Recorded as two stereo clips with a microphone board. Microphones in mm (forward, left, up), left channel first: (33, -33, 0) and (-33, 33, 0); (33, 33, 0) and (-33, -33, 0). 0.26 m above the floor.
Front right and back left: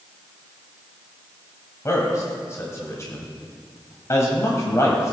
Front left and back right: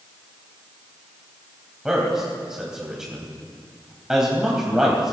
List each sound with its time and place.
1.9 s a man speaking: 55° right, 1.6 m